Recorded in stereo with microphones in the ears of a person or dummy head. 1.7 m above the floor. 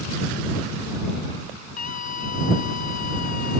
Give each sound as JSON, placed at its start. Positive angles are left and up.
{"t": 1.8, "sound": "a scream", "side_deg": 50}